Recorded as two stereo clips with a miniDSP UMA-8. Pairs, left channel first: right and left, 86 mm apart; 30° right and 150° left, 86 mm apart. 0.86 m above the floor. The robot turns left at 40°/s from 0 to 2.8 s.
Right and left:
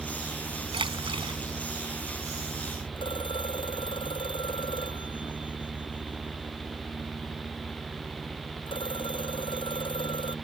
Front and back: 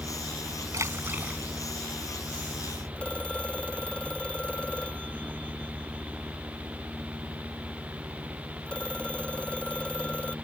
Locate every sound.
0.7 s a splash: 100° left; by 1.4 s 70° left
3.0 s a phone ringing: 110° right